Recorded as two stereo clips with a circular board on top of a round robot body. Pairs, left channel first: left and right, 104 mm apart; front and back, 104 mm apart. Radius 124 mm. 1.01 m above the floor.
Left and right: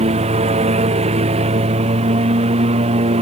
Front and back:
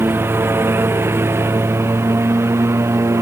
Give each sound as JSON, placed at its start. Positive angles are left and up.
{"t": 0.0, "sound": "a lawn mower", "azimuth_deg": -110}